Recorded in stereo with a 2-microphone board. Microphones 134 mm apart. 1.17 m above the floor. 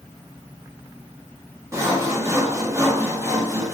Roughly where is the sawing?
Right.